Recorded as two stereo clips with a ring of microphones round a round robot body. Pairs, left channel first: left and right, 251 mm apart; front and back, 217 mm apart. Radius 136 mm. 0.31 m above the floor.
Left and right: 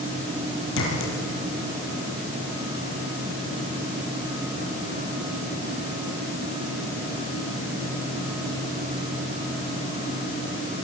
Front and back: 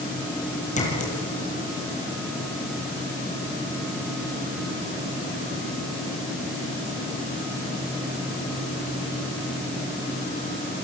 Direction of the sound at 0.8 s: 55° left.